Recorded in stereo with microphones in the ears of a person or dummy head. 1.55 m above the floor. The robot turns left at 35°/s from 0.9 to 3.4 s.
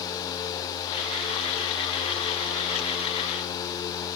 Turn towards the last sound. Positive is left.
No sound to turn to.